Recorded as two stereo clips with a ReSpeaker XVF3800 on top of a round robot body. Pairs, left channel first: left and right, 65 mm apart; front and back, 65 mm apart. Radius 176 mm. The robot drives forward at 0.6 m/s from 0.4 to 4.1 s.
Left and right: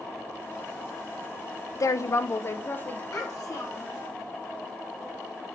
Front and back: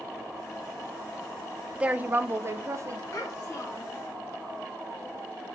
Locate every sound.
1.8 s a woman speaking: 110° left, 0.7 m; by 3.0 s 150° left, 1.1 m
3.1 s a child speaking: 55° left, 4.5 m; by 4.0 s 60° left, 4 m